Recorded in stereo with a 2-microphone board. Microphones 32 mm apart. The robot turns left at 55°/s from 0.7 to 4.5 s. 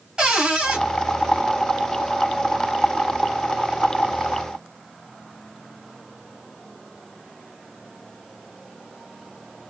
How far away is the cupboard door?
About 1.5 m.